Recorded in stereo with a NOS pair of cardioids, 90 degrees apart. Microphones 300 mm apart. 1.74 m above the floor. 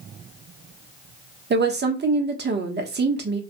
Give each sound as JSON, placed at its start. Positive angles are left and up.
{"t": 1.5, "sound": "a woman speaking", "azimuth_deg": -35, "distance_m": 0.9}